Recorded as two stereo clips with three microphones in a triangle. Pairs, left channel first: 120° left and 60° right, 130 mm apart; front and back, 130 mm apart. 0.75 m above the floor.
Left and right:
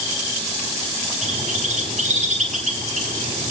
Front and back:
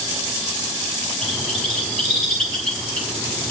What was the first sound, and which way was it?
A bird, 85° right.